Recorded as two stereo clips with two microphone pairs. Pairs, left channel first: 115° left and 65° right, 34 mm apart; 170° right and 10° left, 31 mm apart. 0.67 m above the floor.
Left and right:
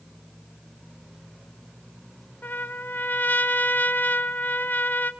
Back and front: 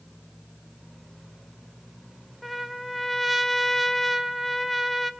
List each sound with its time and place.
2.4 s a trumpet: 105° left, 1.2 m